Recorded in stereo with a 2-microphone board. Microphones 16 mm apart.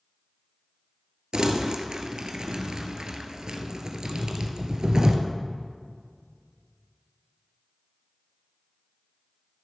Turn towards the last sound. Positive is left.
turn(degrees=-55)  # may be behind; listen again after turning